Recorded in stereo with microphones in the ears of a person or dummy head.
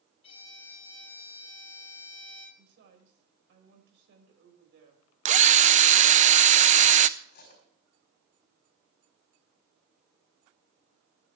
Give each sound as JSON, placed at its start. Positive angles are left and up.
{"t": 0.2, "sound": "a violin", "side_deg": 30, "distance_m": 4.0}
{"t": 2.6, "sound": "a woman speaking", "side_deg": -70, "distance_m": 5.5}
{"t": 5.2, "sound": "a drill", "side_deg": -35, "distance_m": 0.5}
{"t": 7.2, "sound": "cutlery clinking", "side_deg": 50, "distance_m": 4.5}